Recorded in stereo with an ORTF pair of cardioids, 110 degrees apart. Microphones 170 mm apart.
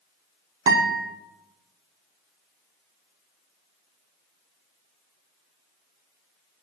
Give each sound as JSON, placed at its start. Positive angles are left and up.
{"t": 0.7, "sound": "a guitar", "azimuth_deg": -25, "distance_m": 0.6}